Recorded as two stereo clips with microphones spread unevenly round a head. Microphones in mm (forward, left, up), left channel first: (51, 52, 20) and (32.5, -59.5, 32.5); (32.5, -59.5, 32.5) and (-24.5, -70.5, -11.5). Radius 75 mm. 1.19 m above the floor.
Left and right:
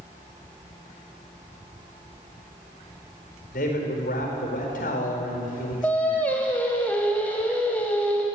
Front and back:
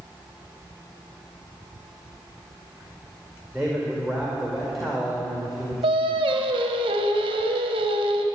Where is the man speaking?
100° left, 4.5 m.